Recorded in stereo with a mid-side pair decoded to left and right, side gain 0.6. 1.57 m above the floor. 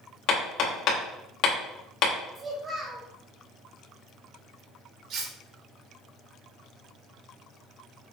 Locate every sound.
0.3 s hammering: 60° left, 2 m
2.4 s a child speaking: 30° right, 1.8 m
5.1 s cutlery clinking: 55° right, 2 m